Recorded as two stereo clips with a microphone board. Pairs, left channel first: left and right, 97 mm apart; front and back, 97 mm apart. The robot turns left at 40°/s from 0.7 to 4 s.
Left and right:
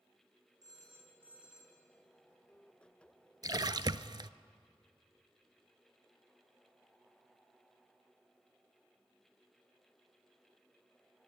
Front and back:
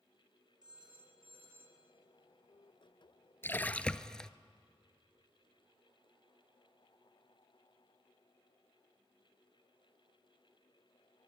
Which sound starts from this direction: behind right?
A phone ringing, at 0.6 s.